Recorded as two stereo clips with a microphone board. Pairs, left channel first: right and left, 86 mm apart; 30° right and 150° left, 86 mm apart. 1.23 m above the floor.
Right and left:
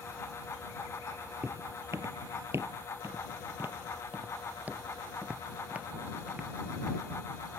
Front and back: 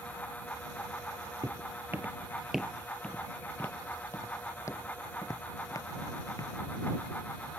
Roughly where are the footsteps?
Behind left.